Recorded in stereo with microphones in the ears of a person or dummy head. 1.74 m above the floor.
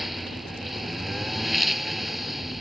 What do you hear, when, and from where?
0.0 s a lawn mower: centre (ahead or behind)